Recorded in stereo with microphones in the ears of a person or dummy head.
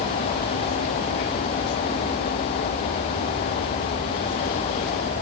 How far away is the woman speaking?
I don't hear a woman speaking.